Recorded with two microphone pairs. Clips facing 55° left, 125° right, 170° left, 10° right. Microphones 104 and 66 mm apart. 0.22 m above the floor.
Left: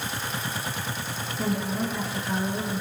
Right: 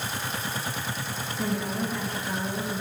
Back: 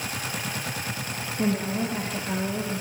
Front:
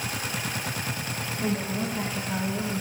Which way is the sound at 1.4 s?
145° left.